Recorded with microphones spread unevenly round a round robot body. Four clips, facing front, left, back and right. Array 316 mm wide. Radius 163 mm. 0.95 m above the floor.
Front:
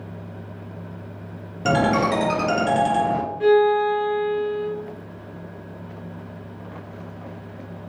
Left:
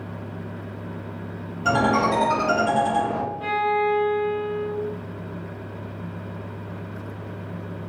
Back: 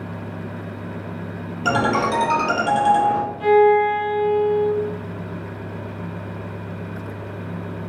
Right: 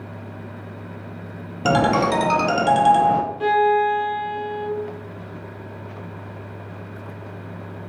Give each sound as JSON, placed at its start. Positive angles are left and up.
{"t": 1.6, "sound": "a ringtone", "azimuth_deg": -75, "distance_m": 0.5}
{"t": 3.4, "sound": "a violin", "azimuth_deg": -75, "distance_m": 0.6}